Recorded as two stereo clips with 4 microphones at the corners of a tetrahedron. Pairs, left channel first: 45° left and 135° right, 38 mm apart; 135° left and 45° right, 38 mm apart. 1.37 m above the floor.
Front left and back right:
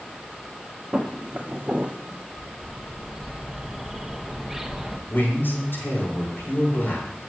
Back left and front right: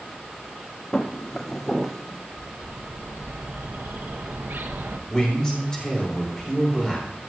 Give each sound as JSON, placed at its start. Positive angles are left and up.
{"t": 0.9, "sound": "footsteps", "azimuth_deg": -175, "distance_m": 1.6}
{"t": 2.4, "sound": "a bird", "azimuth_deg": -50, "distance_m": 0.9}
{"t": 5.1, "sound": "a man speaking", "azimuth_deg": 65, "distance_m": 5.5}